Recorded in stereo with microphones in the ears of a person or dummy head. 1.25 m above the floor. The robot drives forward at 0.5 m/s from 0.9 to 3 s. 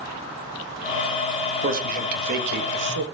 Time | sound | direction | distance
1.6 | a man speaking | 45° right (ahead or behind) | 1.8 m